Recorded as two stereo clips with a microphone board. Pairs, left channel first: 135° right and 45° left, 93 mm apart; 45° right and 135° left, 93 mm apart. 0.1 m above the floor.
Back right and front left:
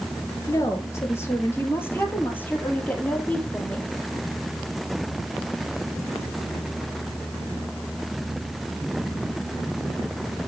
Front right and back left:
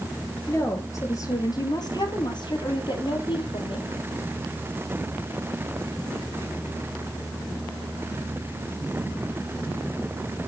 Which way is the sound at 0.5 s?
95° right.